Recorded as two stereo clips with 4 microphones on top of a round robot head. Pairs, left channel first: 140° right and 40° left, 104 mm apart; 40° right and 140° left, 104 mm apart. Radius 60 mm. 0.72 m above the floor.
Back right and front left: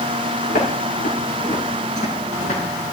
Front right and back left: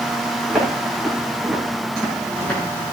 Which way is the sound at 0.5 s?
130° right.